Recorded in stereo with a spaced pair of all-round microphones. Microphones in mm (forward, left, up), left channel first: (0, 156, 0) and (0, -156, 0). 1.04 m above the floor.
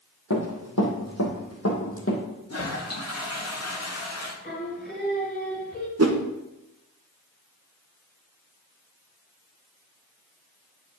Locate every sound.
0.3 s running footsteps: 65° left (ahead or behind), 2 m; by 2.2 s 40° left (ahead or behind), 2 m
2.5 s a toilet flushing: 50° left (ahead or behind), 1.1 m
4.4 s singing: 30° left (ahead or behind), 1.9 m
6.0 s a whoosh: 50° right (ahead or behind), 0.9 m